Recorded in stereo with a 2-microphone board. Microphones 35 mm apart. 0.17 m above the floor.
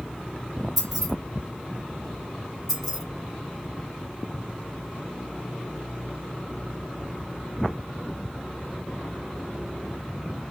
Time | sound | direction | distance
0.8 | keys jangling | 5° left (ahead or behind) | 2 m
2.7 | keys jangling | 10° left (ahead or behind) | 1.6 m